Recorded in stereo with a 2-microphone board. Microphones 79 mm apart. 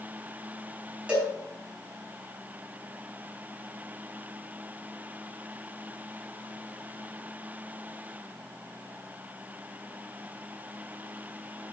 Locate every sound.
1.1 s a cowbell: 15° right (ahead or behind), 4.5 m